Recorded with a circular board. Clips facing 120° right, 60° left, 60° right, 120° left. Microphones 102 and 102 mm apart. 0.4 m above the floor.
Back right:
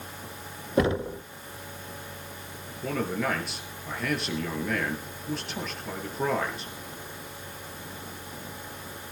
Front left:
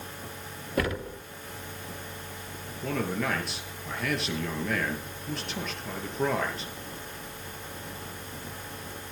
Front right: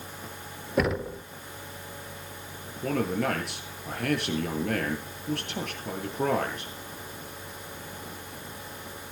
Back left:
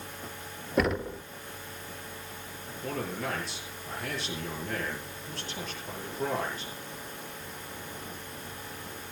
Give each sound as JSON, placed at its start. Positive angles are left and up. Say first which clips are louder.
{"t": 0.8, "sound": "knocking", "louder": "back right 5 dB, front right 1 dB", "azimuth_deg": -150, "distance_m": 0.7}
{"t": 2.8, "sound": "a man speaking", "louder": "back right 1 dB, front right 7 dB", "azimuth_deg": -35, "distance_m": 7.5}